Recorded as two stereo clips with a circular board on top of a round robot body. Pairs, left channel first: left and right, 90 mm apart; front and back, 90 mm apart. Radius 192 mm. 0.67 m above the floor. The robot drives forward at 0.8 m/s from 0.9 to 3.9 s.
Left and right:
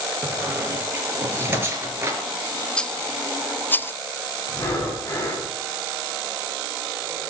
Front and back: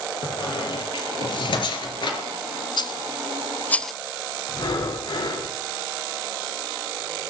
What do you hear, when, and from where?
0.2 s a squeak: 20° right, 5 m; by 2.2 s 25° right, 4 m
2.8 s a rattle: 10° left, 1.1 m; by 3.9 s 85° left, 0.7 m
4.5 s breathing: 25° left, 6.5 m